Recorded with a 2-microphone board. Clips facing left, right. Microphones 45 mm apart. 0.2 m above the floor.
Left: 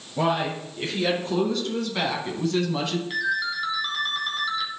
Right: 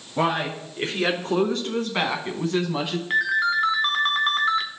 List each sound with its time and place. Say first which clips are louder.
0.2 s a man speaking: even; 50° right (ahead or behind), 2.5 m; by 3.0 s 10° right (ahead or behind), 1.3 m
3.1 s a ringtone: right 8 dB; 45° right (ahead or behind), 1.0 m